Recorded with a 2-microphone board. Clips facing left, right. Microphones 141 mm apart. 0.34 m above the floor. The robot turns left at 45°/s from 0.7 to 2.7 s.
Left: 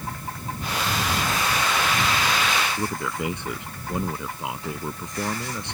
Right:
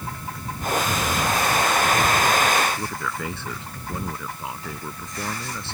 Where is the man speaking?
15° left (ahead or behind).